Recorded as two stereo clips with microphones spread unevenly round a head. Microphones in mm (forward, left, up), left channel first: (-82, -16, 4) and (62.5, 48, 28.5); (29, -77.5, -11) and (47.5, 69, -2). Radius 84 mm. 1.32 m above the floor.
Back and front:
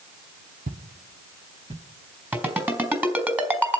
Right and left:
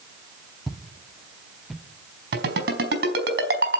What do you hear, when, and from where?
0.7 s footsteps: 5° right, 2.5 m
2.3 s a ringtone: 100° left, 4 m